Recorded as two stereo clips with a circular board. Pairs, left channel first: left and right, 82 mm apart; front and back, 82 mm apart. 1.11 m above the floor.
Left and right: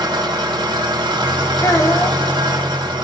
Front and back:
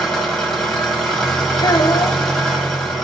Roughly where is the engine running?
Right.